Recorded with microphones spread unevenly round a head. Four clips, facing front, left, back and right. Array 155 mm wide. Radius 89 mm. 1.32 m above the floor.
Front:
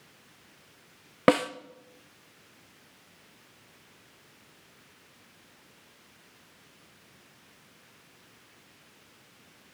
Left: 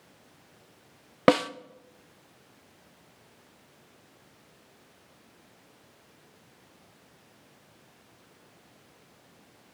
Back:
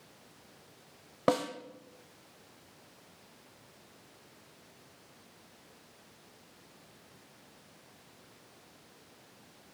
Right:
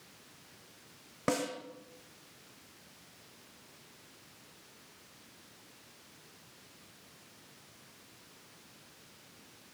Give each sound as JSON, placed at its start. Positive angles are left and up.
{"t": 1.3, "sound": "a snare drum", "azimuth_deg": 25, "distance_m": 0.6}